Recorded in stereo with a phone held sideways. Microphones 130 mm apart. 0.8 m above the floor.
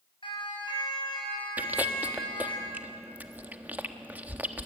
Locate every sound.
0.2 s a siren: 45° left (ahead or behind), 7 m; by 2.6 s 40° left (ahead or behind), 8.5 m
1.6 s chewing: 15° right (ahead or behind), 1.3 m